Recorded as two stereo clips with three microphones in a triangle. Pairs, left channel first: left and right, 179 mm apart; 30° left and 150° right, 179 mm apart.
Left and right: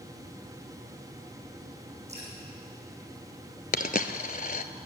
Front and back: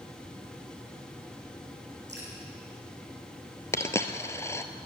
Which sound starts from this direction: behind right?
Dripping, at 2.1 s.